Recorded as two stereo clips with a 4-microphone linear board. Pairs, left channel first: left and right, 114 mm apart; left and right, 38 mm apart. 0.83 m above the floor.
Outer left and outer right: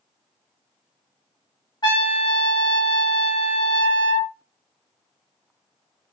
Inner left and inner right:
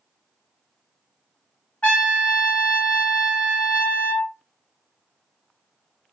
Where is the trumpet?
40° left (ahead or behind), 1.0 m.